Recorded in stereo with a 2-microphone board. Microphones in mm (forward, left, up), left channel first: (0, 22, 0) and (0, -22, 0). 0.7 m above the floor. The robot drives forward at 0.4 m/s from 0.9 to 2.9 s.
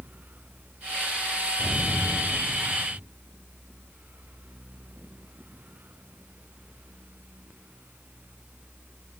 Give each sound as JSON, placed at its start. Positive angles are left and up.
{"t": 1.6, "sound": "an explosion", "side_deg": 60, "distance_m": 1.5}